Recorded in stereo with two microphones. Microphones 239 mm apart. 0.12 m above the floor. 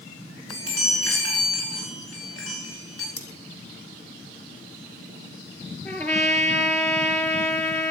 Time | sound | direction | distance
0.5 | a chime | 75° left (ahead or behind) | 10 m
3.2 | cutlery clinking | 70° left (ahead or behind) | 4 m
5.8 | a trumpet | 10° left (ahead or behind) | 3 m